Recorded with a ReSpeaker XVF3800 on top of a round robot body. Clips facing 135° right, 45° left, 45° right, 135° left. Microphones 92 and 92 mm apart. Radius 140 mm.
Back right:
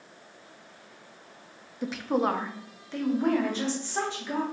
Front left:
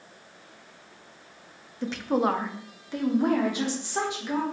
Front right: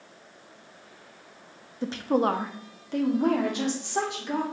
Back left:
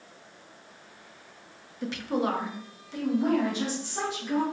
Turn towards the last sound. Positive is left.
turn(degrees=-30)